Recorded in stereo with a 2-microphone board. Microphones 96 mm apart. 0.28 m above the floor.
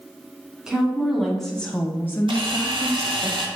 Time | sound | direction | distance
0.7 | a woman speaking | 5° right (ahead or behind) | 2.5 m
2.3 | a camera shutter | 60° right (ahead or behind) | 2.5 m